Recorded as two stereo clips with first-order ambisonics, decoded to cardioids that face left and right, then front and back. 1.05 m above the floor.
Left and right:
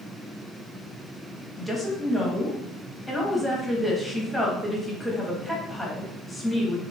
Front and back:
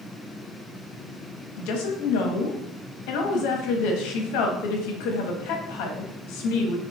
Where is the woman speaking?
Straight ahead, 1.1 m.